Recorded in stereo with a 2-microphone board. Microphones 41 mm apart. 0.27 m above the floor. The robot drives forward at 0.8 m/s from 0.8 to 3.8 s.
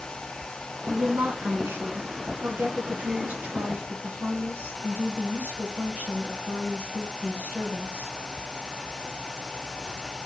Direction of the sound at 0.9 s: 65° right (ahead or behind).